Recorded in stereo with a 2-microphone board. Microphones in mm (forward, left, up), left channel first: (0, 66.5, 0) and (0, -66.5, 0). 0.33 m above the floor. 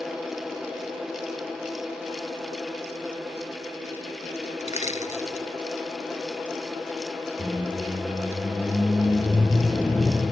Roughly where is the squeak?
Centre.